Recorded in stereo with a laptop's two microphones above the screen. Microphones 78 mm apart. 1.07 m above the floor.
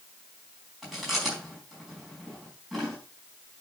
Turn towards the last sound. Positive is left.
turn(degrees=0)  # may be behind; listen again after turning